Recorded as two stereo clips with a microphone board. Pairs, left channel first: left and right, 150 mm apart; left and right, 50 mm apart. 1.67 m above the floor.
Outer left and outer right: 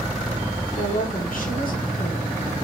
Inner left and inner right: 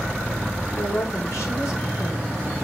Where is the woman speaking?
70° left (ahead or behind), 8 m.